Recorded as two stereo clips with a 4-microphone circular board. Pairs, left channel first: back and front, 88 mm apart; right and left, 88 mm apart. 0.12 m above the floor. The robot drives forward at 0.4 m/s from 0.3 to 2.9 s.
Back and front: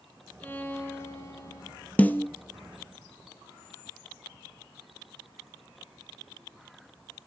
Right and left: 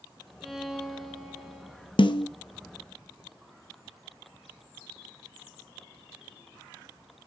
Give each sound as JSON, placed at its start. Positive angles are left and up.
{"t": 0.4, "sound": "a violin", "azimuth_deg": 170, "distance_m": 1.0}
{"t": 2.0, "sound": "a snare drum", "azimuth_deg": -110, "distance_m": 0.6}